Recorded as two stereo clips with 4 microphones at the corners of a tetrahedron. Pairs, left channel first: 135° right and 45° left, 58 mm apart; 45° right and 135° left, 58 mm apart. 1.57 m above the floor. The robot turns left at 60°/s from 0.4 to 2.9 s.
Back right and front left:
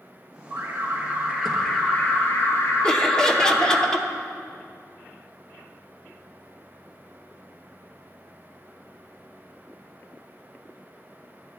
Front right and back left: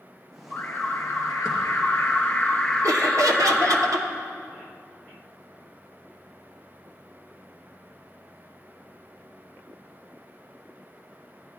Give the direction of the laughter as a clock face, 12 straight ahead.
7 o'clock.